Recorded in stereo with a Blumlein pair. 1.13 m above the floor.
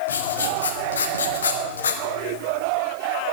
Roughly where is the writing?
Left.